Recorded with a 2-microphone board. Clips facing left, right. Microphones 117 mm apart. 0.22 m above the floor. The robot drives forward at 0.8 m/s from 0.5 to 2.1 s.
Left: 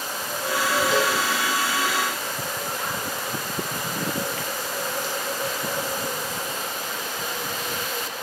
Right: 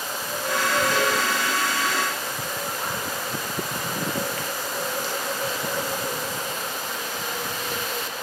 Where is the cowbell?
25° left (ahead or behind), 7 m.